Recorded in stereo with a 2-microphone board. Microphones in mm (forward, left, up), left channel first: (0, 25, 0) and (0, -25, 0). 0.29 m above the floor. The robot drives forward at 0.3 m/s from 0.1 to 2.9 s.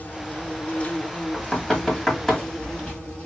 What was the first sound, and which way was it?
An insect, 30° left (ahead or behind).